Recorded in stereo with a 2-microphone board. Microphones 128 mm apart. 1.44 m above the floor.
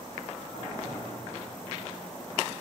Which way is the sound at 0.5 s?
75° left (ahead or behind).